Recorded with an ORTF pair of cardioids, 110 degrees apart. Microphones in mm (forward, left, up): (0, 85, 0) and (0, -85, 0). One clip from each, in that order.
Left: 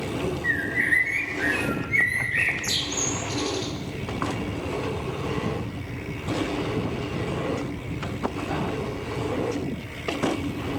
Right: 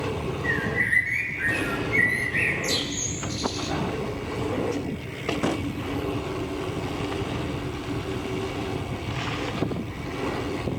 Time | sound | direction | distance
0.4 | a bird | 15° left | 3 m